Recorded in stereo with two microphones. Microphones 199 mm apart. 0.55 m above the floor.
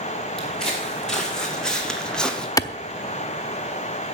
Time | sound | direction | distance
0.4 | footsteps | 5° left (ahead or behind) | 3 m
2.6 | a clap | 20° left (ahead or behind) | 0.6 m